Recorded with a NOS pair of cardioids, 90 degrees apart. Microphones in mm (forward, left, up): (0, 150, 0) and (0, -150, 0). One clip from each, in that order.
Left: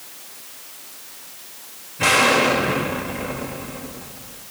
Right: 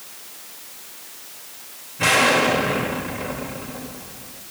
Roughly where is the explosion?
Ahead.